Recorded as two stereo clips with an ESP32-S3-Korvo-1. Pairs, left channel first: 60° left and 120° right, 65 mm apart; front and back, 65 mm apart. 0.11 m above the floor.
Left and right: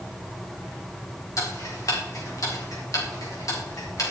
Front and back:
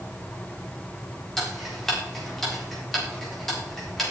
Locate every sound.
1.4 s ticking: 85° left, 6 m